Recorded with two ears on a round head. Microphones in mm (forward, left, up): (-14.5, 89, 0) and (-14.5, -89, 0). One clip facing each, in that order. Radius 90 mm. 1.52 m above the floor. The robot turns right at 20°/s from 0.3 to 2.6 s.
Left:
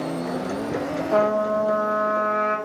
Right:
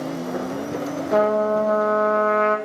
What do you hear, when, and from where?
1.1 s a trumpet: 10° right (ahead or behind), 0.5 m; by 2.6 s 40° right (ahead or behind), 0.5 m